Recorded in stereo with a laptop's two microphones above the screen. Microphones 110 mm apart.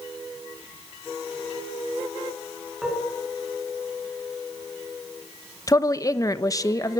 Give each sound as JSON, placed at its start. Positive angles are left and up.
{"t": 2.8, "sound": "dishes clattering", "side_deg": -5, "distance_m": 7.5}
{"t": 5.7, "sound": "a woman speaking", "side_deg": 30, "distance_m": 1.0}